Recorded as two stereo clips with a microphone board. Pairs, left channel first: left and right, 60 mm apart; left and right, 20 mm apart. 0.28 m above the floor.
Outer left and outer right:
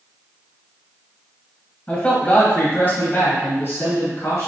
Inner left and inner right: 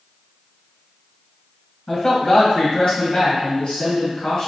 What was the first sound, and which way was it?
A man speaking, 25° left (ahead or behind).